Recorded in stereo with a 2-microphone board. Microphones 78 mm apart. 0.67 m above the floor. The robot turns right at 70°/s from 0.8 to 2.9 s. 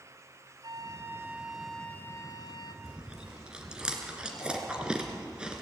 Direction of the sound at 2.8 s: 10° right (ahead or behind).